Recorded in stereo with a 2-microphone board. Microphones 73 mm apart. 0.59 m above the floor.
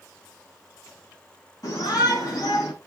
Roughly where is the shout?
Left.